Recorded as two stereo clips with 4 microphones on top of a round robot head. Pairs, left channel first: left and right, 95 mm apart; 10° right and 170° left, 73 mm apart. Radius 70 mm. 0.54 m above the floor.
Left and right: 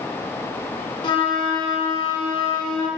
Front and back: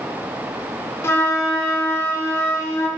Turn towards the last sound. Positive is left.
turn(degrees=45)